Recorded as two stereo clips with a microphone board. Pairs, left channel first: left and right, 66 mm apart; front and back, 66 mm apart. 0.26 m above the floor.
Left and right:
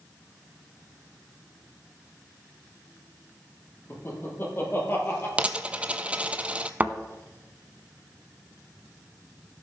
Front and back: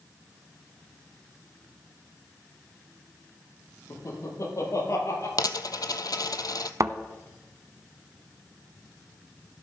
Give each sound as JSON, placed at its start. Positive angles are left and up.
{"t": 3.9, "sound": "laughter", "azimuth_deg": 35, "distance_m": 6.5}
{"t": 5.4, "sound": "a dropped coin", "azimuth_deg": -20, "distance_m": 0.7}
{"t": 6.8, "sound": "a thud", "azimuth_deg": -155, "distance_m": 0.7}